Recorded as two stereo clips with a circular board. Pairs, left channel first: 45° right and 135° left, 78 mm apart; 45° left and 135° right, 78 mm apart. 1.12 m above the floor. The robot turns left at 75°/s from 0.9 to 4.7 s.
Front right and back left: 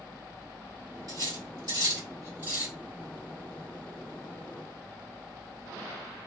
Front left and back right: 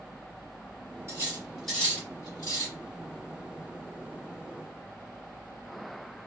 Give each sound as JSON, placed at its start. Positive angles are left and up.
{"t": 1.1, "sound": "cutlery clinking", "azimuth_deg": 170, "distance_m": 2.0}